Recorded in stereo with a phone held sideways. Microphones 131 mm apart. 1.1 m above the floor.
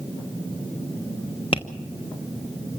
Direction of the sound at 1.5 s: 40° left (ahead or behind).